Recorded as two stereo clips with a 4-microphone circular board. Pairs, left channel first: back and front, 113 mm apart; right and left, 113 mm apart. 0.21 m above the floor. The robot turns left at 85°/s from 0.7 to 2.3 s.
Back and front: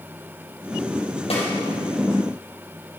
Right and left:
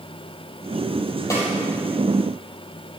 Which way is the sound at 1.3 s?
155° right.